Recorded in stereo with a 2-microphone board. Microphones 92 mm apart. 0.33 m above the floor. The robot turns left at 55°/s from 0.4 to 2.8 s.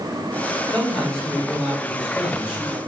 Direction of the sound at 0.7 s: 15° left (ahead or behind).